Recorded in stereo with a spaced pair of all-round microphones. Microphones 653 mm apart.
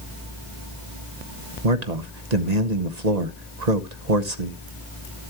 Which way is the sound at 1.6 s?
80° right.